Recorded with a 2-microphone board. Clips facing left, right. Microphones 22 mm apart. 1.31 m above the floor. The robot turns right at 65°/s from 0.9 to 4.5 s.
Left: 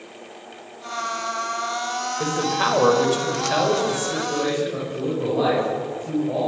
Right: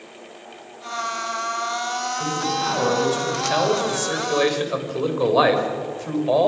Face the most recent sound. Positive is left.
turn(degrees=-115)